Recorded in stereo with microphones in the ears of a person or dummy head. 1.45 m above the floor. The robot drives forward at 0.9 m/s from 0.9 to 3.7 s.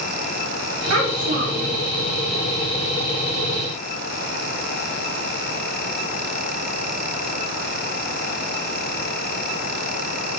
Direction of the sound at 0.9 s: 80° right.